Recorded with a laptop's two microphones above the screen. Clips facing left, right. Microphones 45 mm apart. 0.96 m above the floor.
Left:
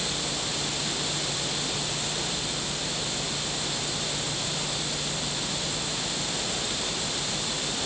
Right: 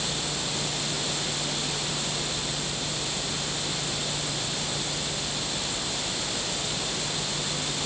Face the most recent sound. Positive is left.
No sound to turn to.